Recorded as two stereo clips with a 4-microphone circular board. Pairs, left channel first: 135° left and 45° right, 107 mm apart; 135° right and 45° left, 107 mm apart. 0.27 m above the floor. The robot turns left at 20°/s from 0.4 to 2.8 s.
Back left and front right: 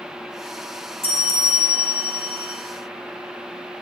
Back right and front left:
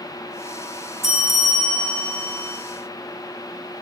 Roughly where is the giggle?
I don't hear a giggle.